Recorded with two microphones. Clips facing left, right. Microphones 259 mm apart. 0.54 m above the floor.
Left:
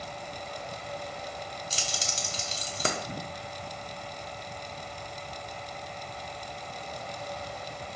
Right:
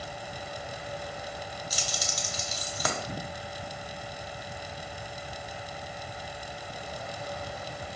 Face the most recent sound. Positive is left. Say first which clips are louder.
# right 1 dB
turn(degrees=30)  # may be behind; listen again after turning